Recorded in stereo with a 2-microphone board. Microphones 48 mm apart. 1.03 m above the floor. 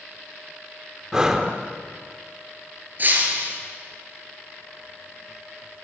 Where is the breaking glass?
40° right (ahead or behind), 4 m.